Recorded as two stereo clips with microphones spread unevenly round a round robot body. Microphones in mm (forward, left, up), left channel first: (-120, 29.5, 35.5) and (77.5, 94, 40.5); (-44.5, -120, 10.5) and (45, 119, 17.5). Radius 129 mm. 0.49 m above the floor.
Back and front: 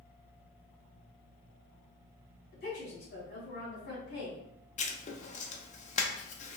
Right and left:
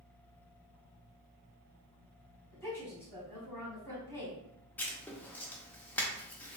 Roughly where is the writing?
Behind.